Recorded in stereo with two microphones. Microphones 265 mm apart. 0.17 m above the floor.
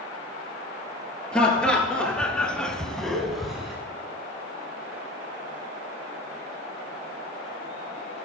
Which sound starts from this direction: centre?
Laughter, at 1.3 s.